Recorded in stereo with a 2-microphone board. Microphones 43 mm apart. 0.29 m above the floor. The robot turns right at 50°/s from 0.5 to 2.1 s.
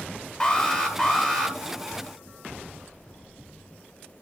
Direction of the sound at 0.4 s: 20° left (ahead or behind).